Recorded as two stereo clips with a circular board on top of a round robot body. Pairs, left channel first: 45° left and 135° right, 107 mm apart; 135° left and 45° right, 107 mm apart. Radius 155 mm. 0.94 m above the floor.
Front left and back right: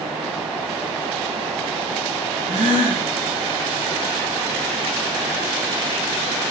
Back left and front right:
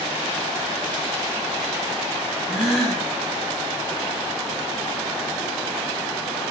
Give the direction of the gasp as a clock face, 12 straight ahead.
4 o'clock.